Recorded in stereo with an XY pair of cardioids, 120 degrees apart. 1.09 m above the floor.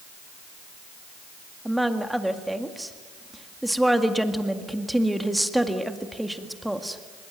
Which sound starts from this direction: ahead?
A woman speaking, at 1.6 s.